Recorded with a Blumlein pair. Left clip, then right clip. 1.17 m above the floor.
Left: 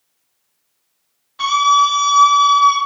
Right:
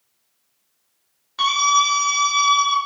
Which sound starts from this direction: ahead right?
A scream, at 1.4 s.